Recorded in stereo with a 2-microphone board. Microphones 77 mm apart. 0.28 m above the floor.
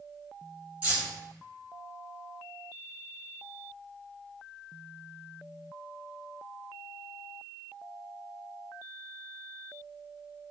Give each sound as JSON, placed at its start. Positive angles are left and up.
{"t": 0.8, "sound": "keys jangling", "side_deg": -20, "distance_m": 2.0}